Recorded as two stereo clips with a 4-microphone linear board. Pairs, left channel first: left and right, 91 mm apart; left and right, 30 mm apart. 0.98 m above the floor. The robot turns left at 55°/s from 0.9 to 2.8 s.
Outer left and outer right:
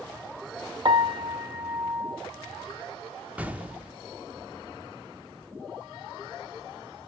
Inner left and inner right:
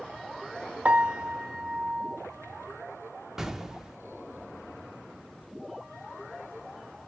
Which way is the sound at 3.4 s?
15° right (ahead or behind).